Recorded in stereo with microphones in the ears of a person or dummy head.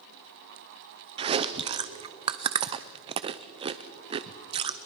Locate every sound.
1.2 s chewing: 20° right (ahead or behind), 0.6 m